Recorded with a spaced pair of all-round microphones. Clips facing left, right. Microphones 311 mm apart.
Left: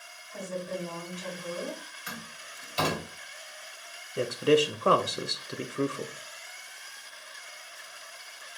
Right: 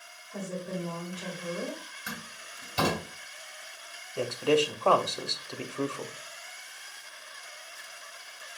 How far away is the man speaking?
About 0.5 m.